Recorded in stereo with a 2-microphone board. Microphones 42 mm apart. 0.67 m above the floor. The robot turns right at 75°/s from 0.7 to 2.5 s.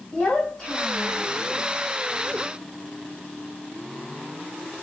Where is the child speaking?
20° left, 1.5 m; by 1.3 s 65° left, 1.5 m.